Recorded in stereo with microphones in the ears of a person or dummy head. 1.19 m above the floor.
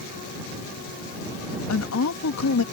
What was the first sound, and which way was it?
A woman speaking, 85° left.